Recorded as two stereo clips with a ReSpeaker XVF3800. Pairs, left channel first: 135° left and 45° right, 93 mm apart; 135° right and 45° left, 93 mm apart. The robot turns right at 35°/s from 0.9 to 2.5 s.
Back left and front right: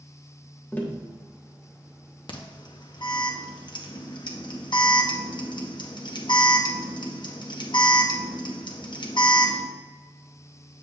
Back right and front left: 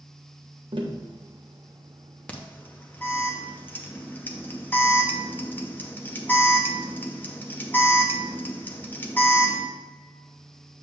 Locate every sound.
0.7 s tapping: 65° left, 1.0 m
2.3 s an alarm: 150° left, 0.8 m; by 9.7 s 160° left, 0.8 m